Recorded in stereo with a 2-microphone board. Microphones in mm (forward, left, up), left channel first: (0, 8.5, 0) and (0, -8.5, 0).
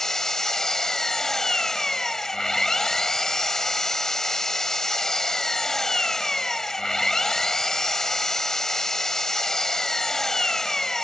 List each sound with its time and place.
0.0 s an engine running: 30° left (ahead or behind)